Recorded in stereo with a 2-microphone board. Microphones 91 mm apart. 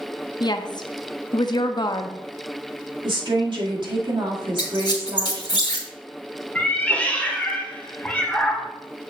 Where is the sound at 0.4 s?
50° left (ahead or behind), 0.6 m.